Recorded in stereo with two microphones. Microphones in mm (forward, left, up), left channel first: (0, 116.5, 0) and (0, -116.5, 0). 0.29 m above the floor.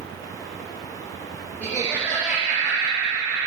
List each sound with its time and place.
1.6 s laughter: 10° right (ahead or behind), 5 m